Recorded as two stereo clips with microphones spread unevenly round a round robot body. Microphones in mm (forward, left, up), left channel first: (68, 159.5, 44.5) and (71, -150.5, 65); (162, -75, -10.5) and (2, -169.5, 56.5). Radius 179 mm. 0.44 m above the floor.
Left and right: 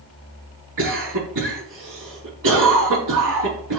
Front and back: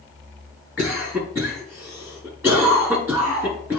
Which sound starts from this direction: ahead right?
A cough, at 0.8 s.